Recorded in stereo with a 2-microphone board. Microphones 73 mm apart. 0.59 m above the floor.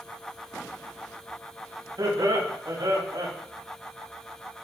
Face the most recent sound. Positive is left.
turn(degrees=-75)  # may be behind; listen again after turning